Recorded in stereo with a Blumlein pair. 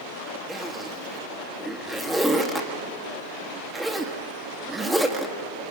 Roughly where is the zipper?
Ahead.